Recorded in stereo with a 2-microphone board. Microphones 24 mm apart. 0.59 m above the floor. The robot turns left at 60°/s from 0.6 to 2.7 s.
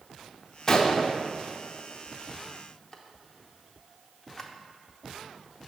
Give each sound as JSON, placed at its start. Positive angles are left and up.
{"t": 0.7, "sound": "a gunshot", "side_deg": 25, "distance_m": 0.8}